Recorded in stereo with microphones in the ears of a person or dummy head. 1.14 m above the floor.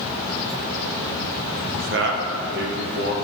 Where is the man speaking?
40° right (ahead or behind), 0.5 m; by 3.1 s 55° right (ahead or behind), 1.5 m.